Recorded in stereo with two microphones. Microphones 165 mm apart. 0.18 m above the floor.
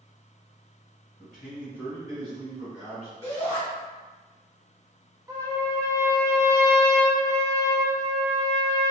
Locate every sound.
1.2 s a man speaking: 5° left (ahead or behind), 1.2 m; by 3.1 s 45° right (ahead or behind), 1.7 m
3.2 s a shout: 25° right (ahead or behind), 1.7 m
5.3 s a trumpet: 20° right (ahead or behind), 0.6 m